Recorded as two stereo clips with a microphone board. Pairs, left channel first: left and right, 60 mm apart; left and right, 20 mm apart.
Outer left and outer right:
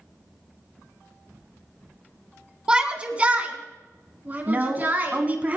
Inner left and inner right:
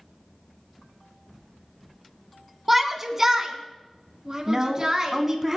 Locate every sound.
2.7 s a shout: 15° right (ahead or behind), 1.4 m; by 5.2 s 35° right (ahead or behind), 3 m
4.5 s a woman speaking: 30° right (ahead or behind), 1.5 m